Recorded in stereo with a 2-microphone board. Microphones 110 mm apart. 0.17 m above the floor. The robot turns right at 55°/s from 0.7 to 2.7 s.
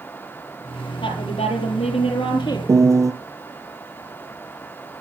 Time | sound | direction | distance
1.0 | a woman speaking | 50° left | 5 m
2.7 | a piano | 30° right (ahead or behind) | 2.5 m